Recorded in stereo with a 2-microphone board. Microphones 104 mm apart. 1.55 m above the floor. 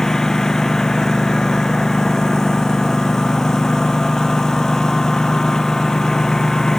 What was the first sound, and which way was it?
A lawn mower, 5° left (ahead or behind).